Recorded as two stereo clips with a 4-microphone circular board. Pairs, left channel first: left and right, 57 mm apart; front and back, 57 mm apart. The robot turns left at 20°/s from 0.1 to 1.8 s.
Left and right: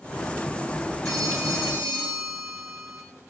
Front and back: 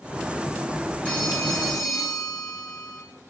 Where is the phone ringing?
70° right, 5.5 m; by 3.0 s 85° right, 5.5 m.